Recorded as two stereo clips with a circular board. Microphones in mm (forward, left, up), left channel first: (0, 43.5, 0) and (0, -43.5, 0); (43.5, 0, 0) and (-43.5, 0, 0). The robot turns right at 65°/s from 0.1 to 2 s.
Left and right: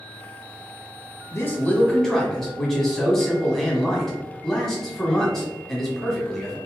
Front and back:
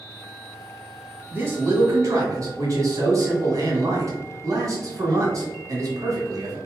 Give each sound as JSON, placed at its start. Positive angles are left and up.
{"t": 1.3, "sound": "a man speaking", "azimuth_deg": 125, "distance_m": 1.3}